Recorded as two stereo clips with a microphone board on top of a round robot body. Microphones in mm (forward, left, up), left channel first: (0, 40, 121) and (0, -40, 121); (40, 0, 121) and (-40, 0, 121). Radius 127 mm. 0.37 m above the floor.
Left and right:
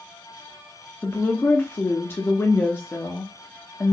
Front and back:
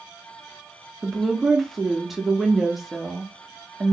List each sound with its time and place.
1.0 s a woman speaking: 95° left, 1.2 m